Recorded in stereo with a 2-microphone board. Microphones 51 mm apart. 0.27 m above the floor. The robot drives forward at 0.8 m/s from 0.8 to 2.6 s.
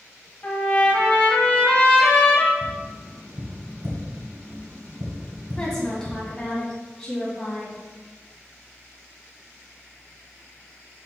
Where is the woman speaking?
15° left (ahead or behind), 2.5 m.